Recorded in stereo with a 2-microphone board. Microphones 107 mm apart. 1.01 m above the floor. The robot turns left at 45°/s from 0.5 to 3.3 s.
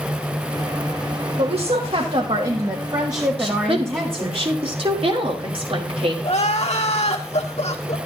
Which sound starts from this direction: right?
A woman speaking, at 3.4 s.